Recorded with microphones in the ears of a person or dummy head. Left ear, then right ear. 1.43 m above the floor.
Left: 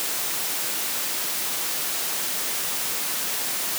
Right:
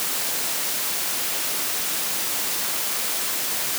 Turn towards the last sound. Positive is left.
No sound to turn to.